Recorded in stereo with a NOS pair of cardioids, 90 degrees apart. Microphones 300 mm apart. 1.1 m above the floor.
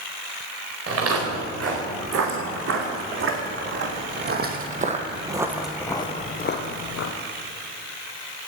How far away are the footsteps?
About 6.5 m.